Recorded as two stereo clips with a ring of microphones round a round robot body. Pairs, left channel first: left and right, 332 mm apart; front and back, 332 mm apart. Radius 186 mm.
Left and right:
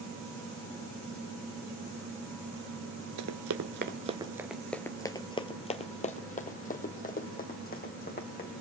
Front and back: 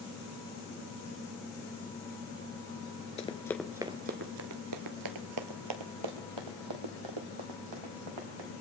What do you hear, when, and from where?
3.2 s running footsteps: 65° right, 0.6 m; by 8.5 s 155° left, 2.5 m